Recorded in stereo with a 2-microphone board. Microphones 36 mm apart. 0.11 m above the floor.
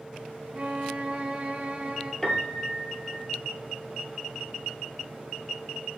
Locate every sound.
0.5 s a violin: 50° right (ahead or behind), 0.9 m
2.2 s a piano: 25° left (ahead or behind), 0.8 m